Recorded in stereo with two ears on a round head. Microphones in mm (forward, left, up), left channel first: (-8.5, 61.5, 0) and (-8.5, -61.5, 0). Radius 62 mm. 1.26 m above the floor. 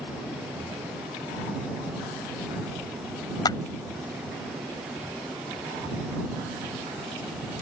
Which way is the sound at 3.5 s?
30° left (ahead or behind).